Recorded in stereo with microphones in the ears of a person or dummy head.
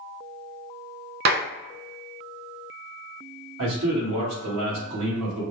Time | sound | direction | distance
1.2 | a clap | 55° right (ahead or behind) | 0.5 m
3.6 | a man speaking | 80° right | 2.5 m